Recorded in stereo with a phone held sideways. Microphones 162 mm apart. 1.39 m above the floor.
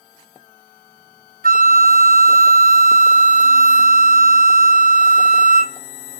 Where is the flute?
60° right (ahead or behind), 1.1 m.